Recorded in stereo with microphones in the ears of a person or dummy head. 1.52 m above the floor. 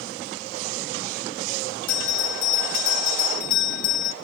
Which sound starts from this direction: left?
A bell, at 1.9 s.